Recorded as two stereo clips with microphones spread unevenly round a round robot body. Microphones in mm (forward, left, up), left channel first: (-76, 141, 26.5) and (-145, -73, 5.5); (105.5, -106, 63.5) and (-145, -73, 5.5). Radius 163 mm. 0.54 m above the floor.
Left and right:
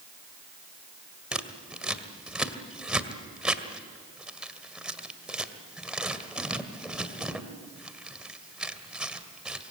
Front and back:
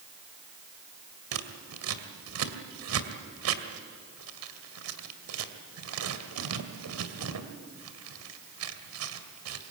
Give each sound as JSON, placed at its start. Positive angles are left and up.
{"t": 1.3, "sound": "scissors", "azimuth_deg": 165, "distance_m": 2.0}